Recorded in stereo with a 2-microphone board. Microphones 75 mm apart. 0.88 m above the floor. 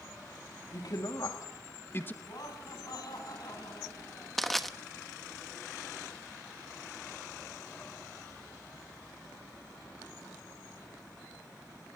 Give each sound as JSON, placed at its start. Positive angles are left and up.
{"t": 0.7, "sound": "a man speaking", "side_deg": 70, "distance_m": 2.5}
{"t": 2.2, "sound": "laughter", "side_deg": 70, "distance_m": 6.5}
{"t": 4.4, "sound": "crushing", "side_deg": 5, "distance_m": 1.0}